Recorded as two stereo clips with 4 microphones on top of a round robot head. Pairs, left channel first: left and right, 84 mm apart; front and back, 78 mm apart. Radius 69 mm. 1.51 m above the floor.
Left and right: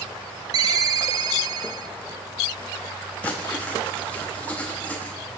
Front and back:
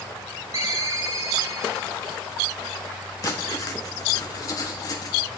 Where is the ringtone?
115° right, 0.6 m.